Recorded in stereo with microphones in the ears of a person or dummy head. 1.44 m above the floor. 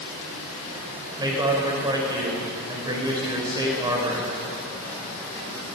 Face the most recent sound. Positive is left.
turn(degrees=-20)  # may be behind; listen again after turning